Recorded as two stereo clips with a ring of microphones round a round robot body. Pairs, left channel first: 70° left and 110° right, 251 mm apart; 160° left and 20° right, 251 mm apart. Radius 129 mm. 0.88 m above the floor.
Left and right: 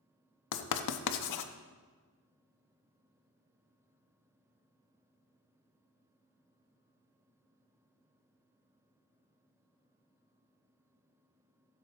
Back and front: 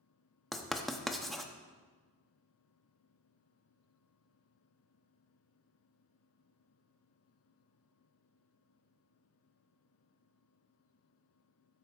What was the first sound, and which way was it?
Writing, 70° left.